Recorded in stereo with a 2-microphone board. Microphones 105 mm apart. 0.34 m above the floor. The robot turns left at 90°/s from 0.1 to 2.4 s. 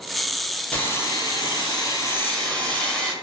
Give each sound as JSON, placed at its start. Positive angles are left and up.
{"t": 0.7, "sound": "sawing", "azimuth_deg": 160, "distance_m": 0.7}